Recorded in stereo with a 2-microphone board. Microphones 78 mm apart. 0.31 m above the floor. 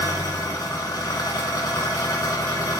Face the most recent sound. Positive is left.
turn(degrees=55)  # may be behind; listen again after turning